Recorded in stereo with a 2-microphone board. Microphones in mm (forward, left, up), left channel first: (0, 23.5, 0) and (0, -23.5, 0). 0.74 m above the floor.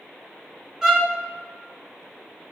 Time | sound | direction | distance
0.8 | a violin | 10° right (ahead or behind) | 0.7 m